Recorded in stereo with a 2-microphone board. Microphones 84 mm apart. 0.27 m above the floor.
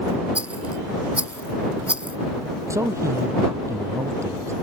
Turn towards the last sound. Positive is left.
turn(degrees=-35)  # may be behind; listen again after turning